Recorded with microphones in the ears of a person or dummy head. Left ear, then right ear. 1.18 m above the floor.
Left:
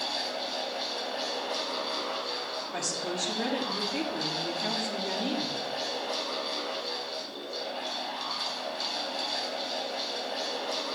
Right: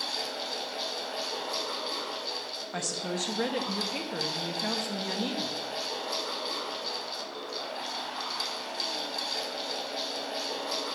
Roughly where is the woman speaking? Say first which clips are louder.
Even; right.